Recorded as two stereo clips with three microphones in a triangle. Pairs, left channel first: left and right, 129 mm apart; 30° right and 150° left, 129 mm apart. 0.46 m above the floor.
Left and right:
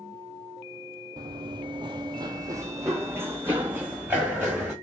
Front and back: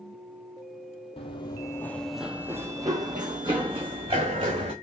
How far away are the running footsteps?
About 0.6 m.